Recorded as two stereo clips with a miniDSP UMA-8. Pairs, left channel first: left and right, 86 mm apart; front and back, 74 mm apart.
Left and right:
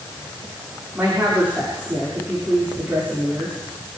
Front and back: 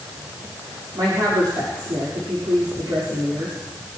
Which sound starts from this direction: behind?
A woman speaking, at 0.9 s.